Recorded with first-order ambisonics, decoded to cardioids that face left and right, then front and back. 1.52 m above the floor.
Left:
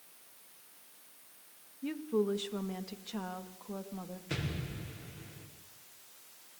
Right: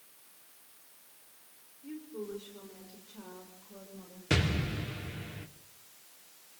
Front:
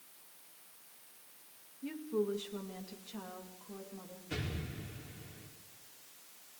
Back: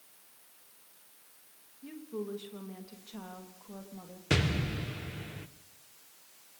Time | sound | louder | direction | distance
1.8 | a woman speaking | left 9 dB, front 4 dB | 75° left | 2 m
4.3 | an explosion | right 10 dB, back 11 dB | 150° right | 1.5 m